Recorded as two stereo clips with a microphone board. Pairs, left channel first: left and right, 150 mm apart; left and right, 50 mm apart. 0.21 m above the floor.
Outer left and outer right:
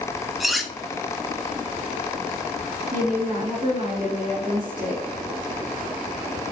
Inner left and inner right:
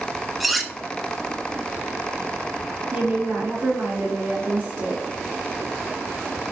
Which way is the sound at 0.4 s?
Centre (ahead or behind).